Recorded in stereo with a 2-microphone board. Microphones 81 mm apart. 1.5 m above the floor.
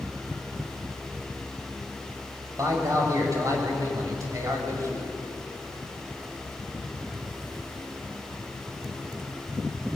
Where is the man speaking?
40° right (ahead or behind), 7 m.